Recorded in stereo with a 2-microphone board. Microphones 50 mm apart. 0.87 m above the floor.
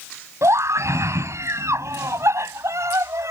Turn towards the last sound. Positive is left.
turn(degrees=-75)  # may be behind; listen again after turning